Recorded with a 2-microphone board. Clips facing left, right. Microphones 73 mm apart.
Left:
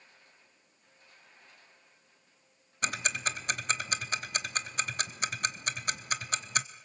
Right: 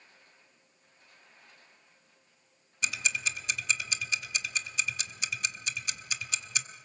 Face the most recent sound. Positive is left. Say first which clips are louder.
# left 1 dB
turn(degrees=50)  # may be behind; listen again after turning